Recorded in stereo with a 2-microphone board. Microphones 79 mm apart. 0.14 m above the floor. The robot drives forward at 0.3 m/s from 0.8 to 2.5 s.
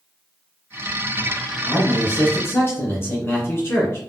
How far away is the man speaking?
About 1.4 m.